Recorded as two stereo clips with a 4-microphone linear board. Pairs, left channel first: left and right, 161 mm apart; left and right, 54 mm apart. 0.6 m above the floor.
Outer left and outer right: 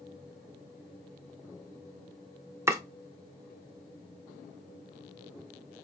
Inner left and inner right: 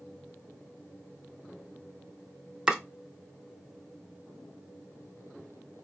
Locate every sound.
2.7 s chopping: 15° right (ahead or behind), 0.6 m